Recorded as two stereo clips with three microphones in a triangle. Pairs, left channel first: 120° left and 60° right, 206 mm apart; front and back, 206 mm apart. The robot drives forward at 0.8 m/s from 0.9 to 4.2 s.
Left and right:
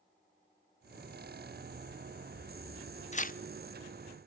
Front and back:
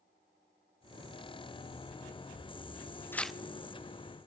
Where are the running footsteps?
90° right, 6 m; by 3.0 s 95° right, 6 m.